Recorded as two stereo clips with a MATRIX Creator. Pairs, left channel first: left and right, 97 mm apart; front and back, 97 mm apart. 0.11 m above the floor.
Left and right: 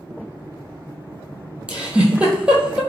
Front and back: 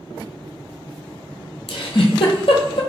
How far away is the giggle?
About 0.9 m.